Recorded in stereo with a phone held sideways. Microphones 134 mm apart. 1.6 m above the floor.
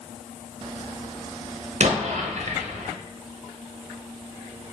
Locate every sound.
1.8 s an explosion: 55° right (ahead or behind), 0.6 m